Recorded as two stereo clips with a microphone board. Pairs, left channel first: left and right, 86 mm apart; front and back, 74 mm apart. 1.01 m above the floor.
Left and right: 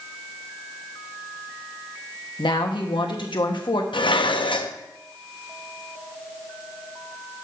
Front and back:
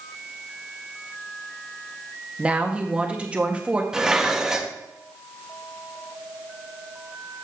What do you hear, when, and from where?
2.4 s a woman speaking: 105° left, 1.2 m
3.9 s dishes clattering: 100° left, 0.6 m